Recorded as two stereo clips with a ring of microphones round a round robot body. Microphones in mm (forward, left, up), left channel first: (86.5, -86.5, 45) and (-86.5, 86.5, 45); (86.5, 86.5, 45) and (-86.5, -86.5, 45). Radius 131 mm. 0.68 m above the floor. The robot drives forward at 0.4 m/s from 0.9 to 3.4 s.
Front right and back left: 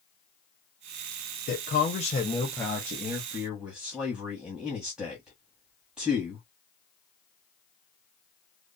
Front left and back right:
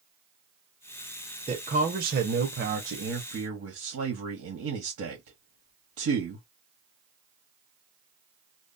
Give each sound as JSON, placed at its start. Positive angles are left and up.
{"t": 1.5, "sound": "a man speaking", "azimuth_deg": -80, "distance_m": 0.8}